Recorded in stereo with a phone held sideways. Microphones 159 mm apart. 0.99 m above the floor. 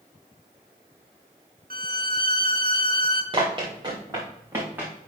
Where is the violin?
70° right (ahead or behind), 1.0 m.